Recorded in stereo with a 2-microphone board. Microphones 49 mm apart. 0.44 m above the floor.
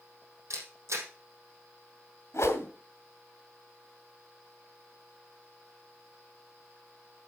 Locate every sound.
0.5 s a camera shutter: 70° right (ahead or behind), 4 m
2.3 s a whoosh: 65° left (ahead or behind), 2 m